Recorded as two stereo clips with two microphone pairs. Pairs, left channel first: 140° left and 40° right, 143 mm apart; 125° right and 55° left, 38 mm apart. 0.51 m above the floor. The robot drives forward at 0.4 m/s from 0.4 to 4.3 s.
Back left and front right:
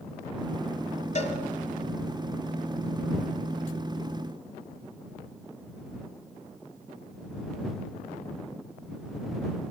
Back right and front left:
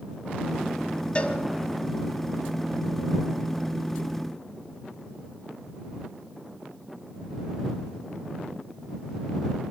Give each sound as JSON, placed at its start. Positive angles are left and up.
{"t": 1.1, "sound": "a cowbell", "azimuth_deg": 175, "distance_m": 2.0}